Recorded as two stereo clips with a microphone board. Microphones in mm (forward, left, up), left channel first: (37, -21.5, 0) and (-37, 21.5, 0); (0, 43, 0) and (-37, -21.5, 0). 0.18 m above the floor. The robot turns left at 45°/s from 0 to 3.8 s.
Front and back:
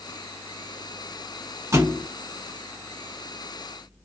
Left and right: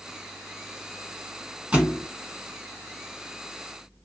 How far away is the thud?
About 0.8 m.